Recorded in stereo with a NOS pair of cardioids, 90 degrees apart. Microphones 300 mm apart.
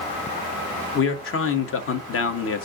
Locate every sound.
0.9 s a man speaking: 50° left, 1.0 m